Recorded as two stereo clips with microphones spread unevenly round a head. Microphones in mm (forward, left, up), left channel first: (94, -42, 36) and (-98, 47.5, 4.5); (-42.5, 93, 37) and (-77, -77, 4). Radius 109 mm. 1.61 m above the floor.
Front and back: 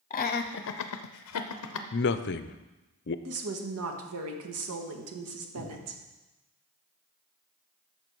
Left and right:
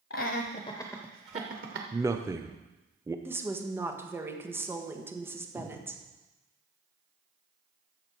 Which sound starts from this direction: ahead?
A man speaking, at 1.9 s.